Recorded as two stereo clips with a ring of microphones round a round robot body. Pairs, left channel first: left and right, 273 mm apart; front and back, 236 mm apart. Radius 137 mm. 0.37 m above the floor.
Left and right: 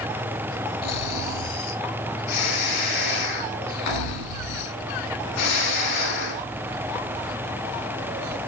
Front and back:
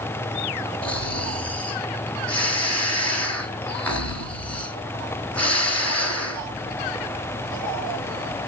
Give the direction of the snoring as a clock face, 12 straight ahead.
9 o'clock.